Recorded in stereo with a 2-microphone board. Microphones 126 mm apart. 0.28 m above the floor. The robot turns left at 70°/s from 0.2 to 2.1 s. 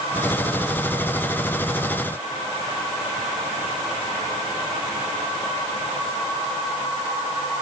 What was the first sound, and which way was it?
Only background noise.